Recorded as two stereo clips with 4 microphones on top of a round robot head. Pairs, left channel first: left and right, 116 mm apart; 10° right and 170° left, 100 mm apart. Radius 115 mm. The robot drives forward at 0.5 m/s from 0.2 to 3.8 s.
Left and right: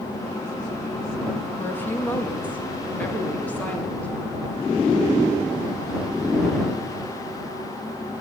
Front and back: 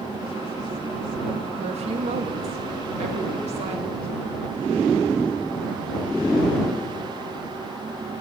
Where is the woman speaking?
160° left, 2 m; by 4.1 s 170° left, 3 m.